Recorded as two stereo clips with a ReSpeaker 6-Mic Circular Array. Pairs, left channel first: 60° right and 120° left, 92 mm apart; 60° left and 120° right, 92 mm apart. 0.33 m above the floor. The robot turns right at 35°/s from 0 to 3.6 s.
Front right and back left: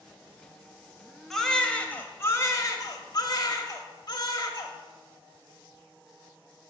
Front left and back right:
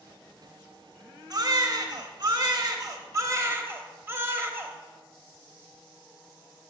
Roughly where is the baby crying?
Behind right.